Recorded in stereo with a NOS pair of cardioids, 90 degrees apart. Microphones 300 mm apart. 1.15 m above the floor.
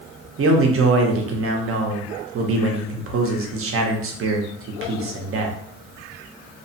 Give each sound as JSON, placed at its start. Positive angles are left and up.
{"t": 0.4, "sound": "a man speaking", "azimuth_deg": -50, "distance_m": 0.8}